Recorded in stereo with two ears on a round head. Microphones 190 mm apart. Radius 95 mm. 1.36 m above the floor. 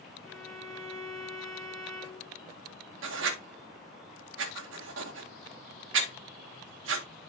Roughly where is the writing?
Right.